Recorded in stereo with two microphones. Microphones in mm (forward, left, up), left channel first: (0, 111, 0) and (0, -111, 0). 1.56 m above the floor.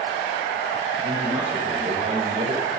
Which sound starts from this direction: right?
A man speaking, at 1.0 s.